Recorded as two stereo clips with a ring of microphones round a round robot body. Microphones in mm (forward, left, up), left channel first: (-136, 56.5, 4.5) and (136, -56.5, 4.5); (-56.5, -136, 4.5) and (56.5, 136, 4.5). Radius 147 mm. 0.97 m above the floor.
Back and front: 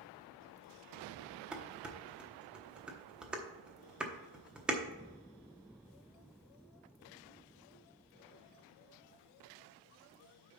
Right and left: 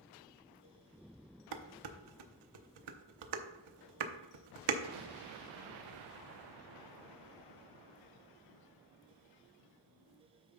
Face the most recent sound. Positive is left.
turn(degrees=65)